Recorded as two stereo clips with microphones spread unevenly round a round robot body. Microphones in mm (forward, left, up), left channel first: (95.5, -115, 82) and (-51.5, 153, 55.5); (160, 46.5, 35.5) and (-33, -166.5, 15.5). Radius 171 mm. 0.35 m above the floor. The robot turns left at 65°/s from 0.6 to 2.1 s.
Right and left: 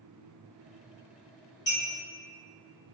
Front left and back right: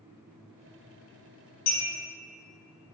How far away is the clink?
About 1.5 m.